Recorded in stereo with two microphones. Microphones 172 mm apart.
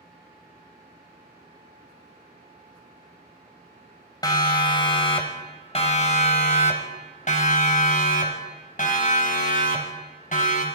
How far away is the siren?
About 2.5 m.